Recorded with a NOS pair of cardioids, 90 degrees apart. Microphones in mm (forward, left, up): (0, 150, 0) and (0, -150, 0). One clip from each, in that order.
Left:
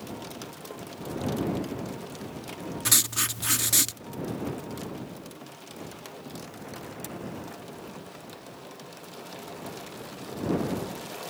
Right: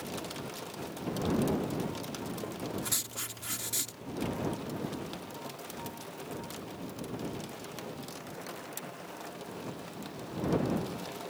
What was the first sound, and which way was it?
Writing, 65° left.